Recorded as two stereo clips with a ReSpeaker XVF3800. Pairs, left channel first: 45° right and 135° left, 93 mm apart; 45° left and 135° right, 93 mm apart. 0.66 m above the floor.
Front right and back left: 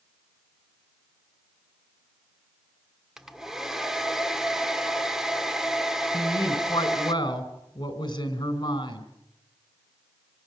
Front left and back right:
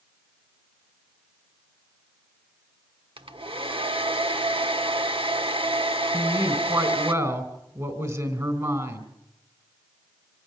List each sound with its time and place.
3.2 s a hair dryer: 140° right, 1.2 m
6.1 s a woman speaking: 80° right, 3.5 m